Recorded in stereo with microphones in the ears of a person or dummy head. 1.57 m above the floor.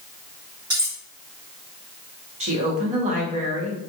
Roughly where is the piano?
I don't hear a piano.